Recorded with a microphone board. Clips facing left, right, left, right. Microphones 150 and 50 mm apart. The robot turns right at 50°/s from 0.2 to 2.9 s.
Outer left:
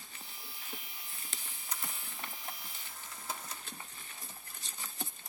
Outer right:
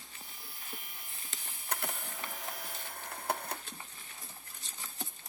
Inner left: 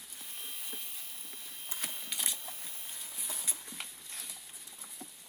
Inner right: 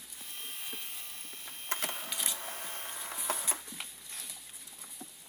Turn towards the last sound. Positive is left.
turn(degrees=-60)  # may be behind; listen again after turning